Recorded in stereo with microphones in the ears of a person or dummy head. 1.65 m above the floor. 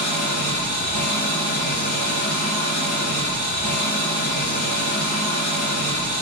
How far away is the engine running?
About 3.5 m.